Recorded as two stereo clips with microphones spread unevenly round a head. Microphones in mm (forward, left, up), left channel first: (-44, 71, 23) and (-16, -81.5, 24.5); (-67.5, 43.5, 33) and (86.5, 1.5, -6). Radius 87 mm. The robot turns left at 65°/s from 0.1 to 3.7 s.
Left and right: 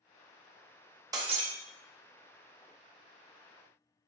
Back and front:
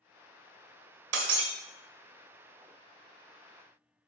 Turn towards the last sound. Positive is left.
turn(degrees=-175)